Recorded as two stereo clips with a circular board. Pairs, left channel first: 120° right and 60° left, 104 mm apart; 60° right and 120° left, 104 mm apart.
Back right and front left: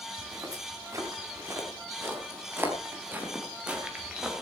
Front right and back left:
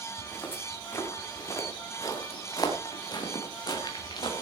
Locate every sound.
0.2 s footsteps: 5° left, 5 m; by 4.4 s 25° right, 3.5 m